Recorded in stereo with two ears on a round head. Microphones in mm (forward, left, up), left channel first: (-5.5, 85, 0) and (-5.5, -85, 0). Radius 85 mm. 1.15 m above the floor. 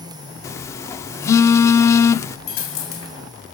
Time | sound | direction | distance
0.4 | a phone buzzing | 15° left (ahead or behind) | 0.7 m
2.5 | a dropped coin | 75° left (ahead or behind) | 3 m